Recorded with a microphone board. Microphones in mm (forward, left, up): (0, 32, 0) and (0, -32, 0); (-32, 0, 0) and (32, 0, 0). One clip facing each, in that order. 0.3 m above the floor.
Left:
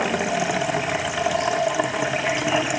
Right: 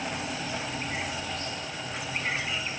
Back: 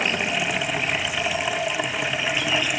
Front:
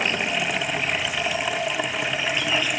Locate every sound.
0.0 s running water: 90° left